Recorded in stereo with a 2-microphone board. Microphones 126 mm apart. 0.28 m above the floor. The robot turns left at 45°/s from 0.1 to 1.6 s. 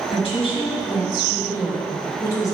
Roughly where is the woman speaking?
Left.